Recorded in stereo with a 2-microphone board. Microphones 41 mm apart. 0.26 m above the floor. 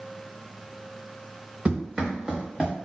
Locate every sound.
1.6 s running footsteps: 35° right (ahead or behind), 1.0 m; by 2.7 s 5° right (ahead or behind), 1.1 m